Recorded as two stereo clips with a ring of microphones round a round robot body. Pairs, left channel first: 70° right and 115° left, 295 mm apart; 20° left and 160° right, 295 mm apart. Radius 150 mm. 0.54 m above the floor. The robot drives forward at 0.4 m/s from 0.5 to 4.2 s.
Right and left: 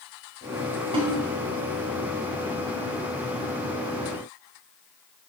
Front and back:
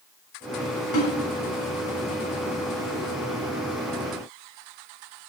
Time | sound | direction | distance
0.9 | a snare drum | 40° left | 4 m